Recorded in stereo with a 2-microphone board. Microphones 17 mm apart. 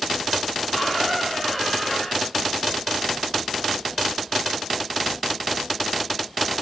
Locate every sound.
0.7 s a squeak: 5° left (ahead or behind), 7.5 m